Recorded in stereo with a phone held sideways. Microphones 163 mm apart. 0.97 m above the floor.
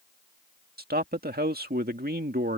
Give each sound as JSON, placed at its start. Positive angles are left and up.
{"t": 0.8, "sound": "a man speaking", "side_deg": -75}